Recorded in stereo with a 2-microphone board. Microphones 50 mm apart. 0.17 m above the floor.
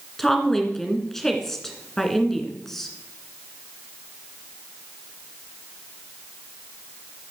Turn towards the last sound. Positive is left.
turn(degrees=5)  # may be behind; listen again after turning